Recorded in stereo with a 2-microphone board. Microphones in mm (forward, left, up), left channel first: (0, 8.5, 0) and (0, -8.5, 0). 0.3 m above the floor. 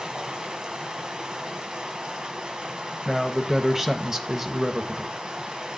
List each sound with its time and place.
0.0 s running water: 55° right (ahead or behind), 1.1 m
3.0 s a man speaking: 20° right (ahead or behind), 0.9 m